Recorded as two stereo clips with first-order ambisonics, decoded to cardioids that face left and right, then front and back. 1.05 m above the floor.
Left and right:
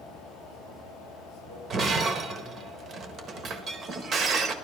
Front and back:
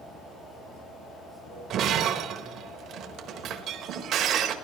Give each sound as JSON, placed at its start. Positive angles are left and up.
{"t": 0.0, "sound": "running water", "azimuth_deg": -35, "distance_m": 6.0}
{"t": 1.7, "sound": "breaking glass", "azimuth_deg": -145, "distance_m": 1.0}